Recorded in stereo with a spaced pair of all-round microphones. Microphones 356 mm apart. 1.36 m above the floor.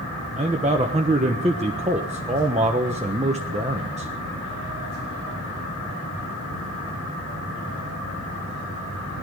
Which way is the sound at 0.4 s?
20° right (ahead or behind).